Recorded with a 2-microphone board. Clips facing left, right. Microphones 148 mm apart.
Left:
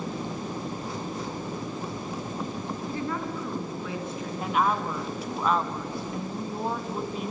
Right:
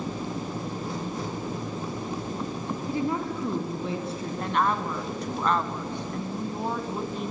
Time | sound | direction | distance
2.9 | a woman speaking | 15° right (ahead or behind) | 1.8 m
4.4 | a woman speaking | 5° left (ahead or behind) | 1.6 m